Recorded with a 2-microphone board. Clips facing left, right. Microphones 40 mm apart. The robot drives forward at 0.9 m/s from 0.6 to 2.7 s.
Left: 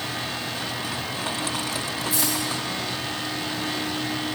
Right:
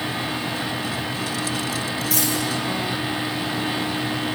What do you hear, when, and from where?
2.1 s a dropped coin: 85° right, 3.5 m